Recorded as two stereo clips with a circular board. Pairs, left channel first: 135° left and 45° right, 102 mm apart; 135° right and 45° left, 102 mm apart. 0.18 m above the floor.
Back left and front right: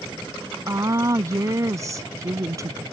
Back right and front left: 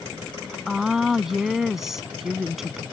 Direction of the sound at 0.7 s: 40° right.